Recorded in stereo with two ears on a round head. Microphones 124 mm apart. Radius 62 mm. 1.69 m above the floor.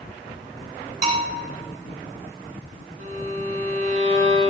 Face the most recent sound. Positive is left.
turn(degrees=-50)  # may be behind; listen again after turning